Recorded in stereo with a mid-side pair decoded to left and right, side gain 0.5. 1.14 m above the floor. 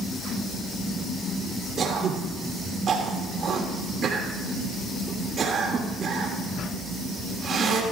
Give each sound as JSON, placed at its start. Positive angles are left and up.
{"t": 1.8, "sound": "throat clearing", "azimuth_deg": -50, "distance_m": 2.5}